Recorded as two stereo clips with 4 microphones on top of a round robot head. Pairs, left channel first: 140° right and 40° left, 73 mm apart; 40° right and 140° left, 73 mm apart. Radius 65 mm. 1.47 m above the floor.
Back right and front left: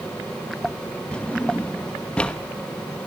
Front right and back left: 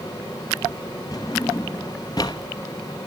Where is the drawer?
70° right, 0.8 m.